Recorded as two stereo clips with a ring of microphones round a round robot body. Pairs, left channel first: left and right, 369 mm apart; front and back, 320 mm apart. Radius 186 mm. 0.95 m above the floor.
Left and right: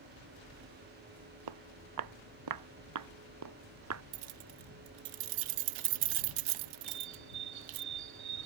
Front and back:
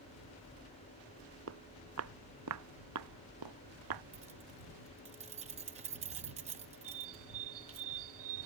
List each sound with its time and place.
1.5 s footsteps: 120° right; by 4.0 s 140° right
4.1 s keys jangling: 105° right
6.8 s a bird: 135° right